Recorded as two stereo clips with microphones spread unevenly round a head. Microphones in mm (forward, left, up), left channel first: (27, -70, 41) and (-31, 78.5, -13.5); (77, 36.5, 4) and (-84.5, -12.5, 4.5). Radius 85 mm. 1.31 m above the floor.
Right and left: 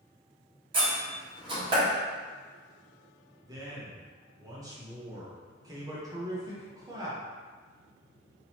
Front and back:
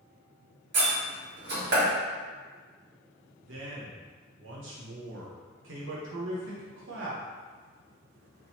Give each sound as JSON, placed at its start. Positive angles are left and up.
{"t": 0.7, "sound": "a door slam", "azimuth_deg": 180, "distance_m": 1.7}
{"t": 3.4, "sound": "a man speaking", "azimuth_deg": -175, "distance_m": 0.9}